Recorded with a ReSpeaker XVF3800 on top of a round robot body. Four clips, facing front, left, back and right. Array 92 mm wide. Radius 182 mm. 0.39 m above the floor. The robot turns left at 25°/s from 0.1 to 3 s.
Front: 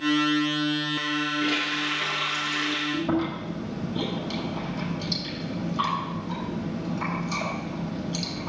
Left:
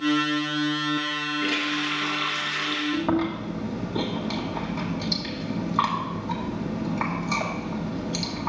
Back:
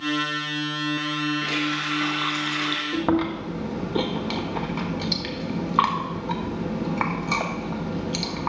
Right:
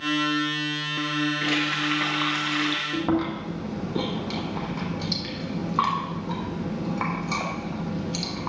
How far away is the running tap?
About 2.5 m.